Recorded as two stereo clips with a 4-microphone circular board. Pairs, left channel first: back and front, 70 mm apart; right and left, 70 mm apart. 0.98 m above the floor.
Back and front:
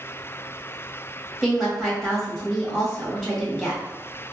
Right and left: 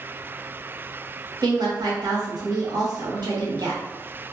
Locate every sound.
1.4 s a woman speaking: 95° left, 1.6 m